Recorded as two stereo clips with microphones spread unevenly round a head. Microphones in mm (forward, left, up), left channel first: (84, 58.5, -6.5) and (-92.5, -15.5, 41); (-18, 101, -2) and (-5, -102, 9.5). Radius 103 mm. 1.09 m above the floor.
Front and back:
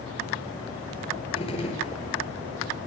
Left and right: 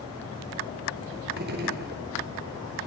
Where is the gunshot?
40° right, 4.5 m.